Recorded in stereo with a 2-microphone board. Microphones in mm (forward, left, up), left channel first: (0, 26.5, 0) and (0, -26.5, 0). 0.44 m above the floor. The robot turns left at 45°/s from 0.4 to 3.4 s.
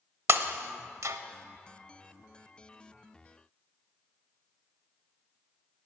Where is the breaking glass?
60° right (ahead or behind), 0.8 m; by 1.2 s 75° right (ahead or behind), 0.8 m.